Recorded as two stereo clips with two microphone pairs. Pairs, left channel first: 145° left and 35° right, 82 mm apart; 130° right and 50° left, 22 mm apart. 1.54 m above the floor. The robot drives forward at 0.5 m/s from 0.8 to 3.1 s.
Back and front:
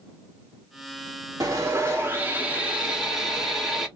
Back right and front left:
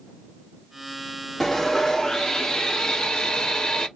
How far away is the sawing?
About 1.2 m.